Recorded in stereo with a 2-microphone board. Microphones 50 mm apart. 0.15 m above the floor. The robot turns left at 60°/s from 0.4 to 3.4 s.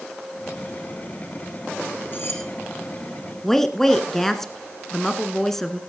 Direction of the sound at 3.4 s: 10° left (ahead or behind).